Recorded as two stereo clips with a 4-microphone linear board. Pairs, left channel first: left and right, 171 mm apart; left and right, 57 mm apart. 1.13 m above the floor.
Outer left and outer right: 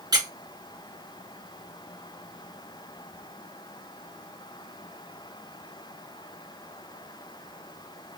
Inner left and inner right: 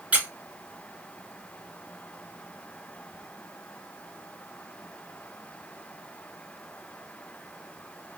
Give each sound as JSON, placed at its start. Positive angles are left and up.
{"t": 0.1, "sound": "a squeak", "side_deg": -25, "distance_m": 1.0}